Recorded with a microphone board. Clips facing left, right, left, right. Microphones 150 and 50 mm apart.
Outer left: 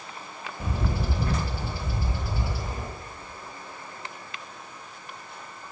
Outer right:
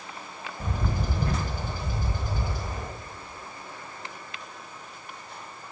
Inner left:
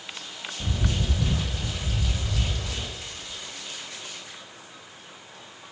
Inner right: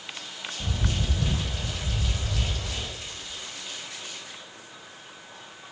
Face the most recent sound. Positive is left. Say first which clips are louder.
# outer left 1 dB, inner left 2 dB
turn(degrees=10)  # may be behind; listen again after turning